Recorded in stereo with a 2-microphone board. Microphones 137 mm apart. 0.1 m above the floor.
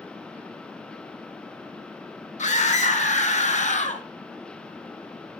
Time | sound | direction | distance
2.4 | a scream | 60° left (ahead or behind) | 4 m